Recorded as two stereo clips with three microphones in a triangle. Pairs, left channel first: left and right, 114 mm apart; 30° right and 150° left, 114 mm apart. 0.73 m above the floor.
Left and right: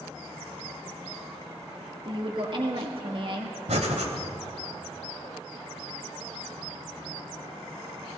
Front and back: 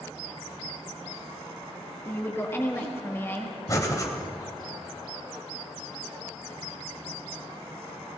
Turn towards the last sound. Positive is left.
turn(degrees=-90)